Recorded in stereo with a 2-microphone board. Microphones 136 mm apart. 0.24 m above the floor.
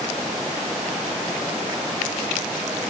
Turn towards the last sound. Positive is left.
No sound to turn to.